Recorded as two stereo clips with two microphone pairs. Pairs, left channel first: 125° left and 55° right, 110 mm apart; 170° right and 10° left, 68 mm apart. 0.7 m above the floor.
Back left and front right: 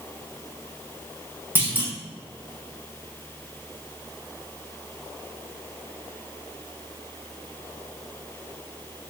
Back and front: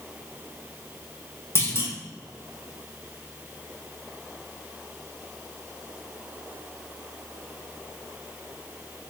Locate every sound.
1.6 s a clunk: 125° right, 2.5 m